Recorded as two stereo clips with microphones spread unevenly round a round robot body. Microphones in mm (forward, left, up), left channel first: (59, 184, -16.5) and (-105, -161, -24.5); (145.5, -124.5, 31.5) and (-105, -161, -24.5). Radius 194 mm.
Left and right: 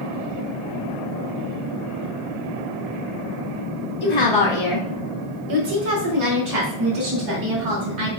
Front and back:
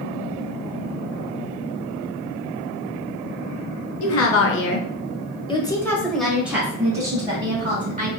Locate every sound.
4.0 s a woman speaking: 10° left, 1.4 m; by 8.1 s 110° right, 3 m